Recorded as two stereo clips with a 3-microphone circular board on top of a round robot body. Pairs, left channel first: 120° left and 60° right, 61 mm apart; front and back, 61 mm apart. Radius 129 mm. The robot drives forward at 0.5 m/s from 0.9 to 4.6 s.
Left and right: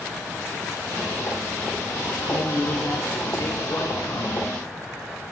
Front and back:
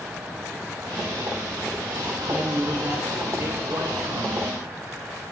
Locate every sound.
2.2 s a man speaking: 130° left, 1.8 m; by 4.5 s 150° left, 2.5 m